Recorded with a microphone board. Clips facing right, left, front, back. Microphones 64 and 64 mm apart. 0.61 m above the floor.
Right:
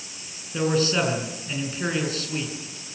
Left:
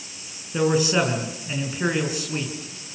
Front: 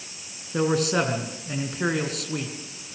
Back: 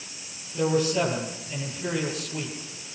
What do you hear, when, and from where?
0.5 s a man speaking: 15° left, 7 m